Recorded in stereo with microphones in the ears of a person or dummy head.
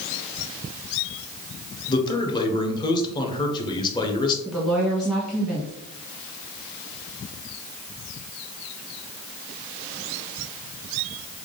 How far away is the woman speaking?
About 1.1 m.